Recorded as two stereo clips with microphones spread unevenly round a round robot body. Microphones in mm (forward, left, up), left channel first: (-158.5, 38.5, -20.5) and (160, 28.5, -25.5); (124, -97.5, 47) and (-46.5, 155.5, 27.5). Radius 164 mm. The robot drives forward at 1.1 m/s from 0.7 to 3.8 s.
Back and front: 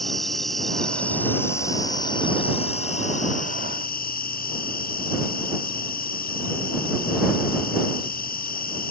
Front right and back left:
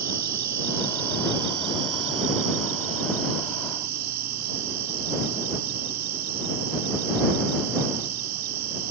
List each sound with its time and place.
0.0 s an insect: 90° left; by 8.9 s 115° left